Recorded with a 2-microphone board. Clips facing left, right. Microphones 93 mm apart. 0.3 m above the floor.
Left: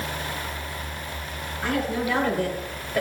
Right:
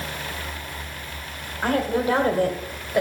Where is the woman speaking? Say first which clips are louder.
Right 4 dB; 40° right (ahead or behind), 2.0 m; by 3.0 s 15° right (ahead or behind), 1.5 m.